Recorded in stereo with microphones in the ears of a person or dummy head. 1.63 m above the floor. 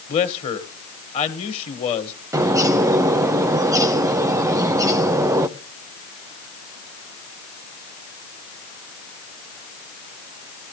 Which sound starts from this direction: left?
A man speaking, at 0.1 s.